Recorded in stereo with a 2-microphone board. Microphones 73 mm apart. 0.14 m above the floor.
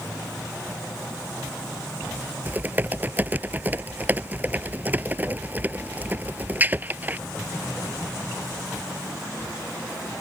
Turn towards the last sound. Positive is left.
turn(degrees=-25)  # may be behind; listen again after turning